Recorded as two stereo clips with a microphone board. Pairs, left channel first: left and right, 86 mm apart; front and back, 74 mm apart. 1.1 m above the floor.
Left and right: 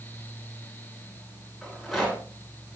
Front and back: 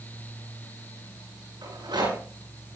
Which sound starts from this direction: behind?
A rattle, at 1.6 s.